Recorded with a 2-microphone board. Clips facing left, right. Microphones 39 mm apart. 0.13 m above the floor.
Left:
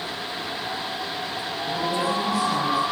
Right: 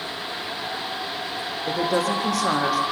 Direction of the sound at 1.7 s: 70° right (ahead or behind).